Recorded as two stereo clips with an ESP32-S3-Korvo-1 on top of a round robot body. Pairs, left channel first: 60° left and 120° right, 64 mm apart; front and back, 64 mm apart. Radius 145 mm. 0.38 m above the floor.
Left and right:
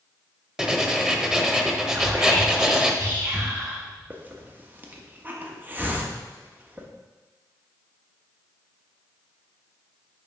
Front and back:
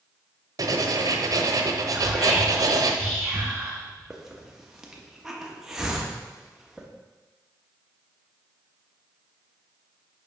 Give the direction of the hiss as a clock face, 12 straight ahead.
3 o'clock.